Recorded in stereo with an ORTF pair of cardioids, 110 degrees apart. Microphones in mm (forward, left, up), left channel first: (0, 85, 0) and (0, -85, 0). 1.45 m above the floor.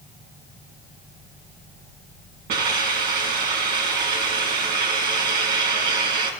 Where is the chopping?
I don't hear chopping.